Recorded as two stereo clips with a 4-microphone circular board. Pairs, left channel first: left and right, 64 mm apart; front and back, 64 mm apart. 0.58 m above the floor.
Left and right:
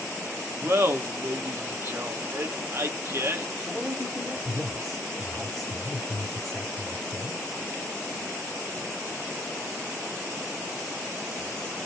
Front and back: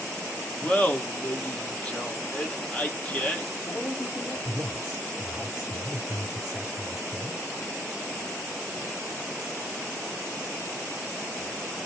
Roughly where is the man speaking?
Ahead.